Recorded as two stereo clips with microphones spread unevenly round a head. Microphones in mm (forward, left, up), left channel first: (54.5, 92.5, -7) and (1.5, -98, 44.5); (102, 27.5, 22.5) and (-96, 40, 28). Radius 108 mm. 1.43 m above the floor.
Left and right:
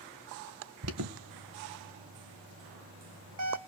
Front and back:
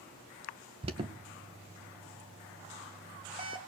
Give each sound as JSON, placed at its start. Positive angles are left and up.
{"t": 0.8, "sound": "an alarm", "azimuth_deg": -120, "distance_m": 2.0}